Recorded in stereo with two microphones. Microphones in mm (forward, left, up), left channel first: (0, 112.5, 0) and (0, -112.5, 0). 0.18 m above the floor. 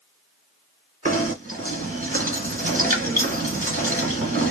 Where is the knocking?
35° right (ahead or behind), 1.6 m.